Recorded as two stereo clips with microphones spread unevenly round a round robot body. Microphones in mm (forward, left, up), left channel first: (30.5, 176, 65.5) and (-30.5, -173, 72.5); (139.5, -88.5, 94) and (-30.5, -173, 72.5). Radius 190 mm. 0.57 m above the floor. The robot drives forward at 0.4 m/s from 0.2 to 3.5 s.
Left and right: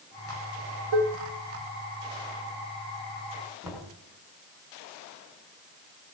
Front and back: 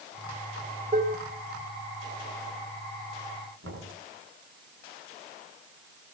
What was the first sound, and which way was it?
Dishes clattering, 105° right.